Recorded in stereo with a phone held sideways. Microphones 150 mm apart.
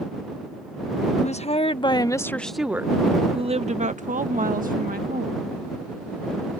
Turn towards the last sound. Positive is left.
turn(degrees=-70)  # may be behind; listen again after turning